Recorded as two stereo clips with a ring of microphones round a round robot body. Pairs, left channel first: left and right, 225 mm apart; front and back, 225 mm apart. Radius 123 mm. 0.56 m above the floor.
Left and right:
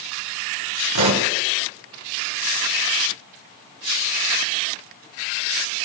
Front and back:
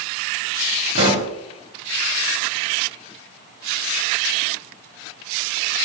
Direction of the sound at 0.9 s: 110° right.